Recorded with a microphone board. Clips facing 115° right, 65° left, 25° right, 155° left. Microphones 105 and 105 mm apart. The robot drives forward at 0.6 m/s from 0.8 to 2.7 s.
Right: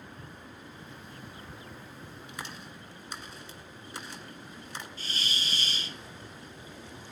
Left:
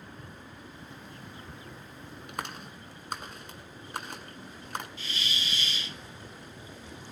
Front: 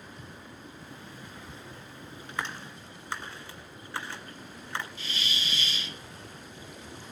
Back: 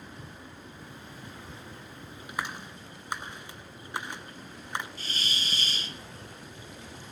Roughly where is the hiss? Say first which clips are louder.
Even, even; behind right.